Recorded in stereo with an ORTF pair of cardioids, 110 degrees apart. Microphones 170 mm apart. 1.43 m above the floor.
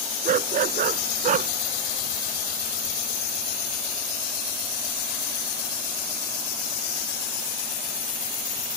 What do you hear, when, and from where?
0.2 s a dog barking: 55° right